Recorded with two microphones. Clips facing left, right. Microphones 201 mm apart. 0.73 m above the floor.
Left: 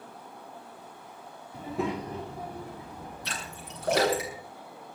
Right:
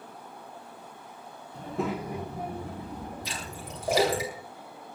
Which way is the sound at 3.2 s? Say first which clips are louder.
Right 2 dB; 70° left (ahead or behind).